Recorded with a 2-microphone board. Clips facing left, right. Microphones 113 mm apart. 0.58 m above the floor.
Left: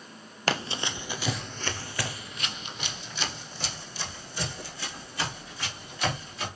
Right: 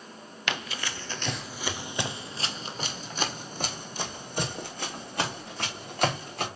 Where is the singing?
No singing in this recording.